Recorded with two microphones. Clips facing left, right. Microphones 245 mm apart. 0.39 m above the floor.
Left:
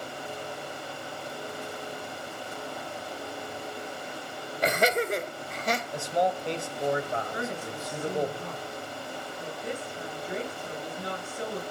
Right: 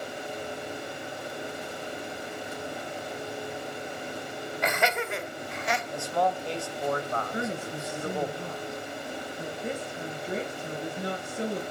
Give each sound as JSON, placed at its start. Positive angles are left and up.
{"t": 4.6, "sound": "laughter", "side_deg": 40, "distance_m": 1.6}
{"t": 5.9, "sound": "a man speaking", "side_deg": 20, "distance_m": 1.9}
{"t": 7.3, "sound": "a woman speaking", "side_deg": -30, "distance_m": 6.0}